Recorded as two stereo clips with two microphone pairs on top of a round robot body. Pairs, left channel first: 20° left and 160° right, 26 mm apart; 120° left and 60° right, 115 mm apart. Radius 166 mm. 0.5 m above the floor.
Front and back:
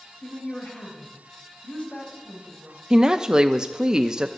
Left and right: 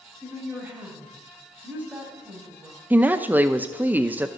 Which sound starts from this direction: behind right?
A woman speaking, at 2.9 s.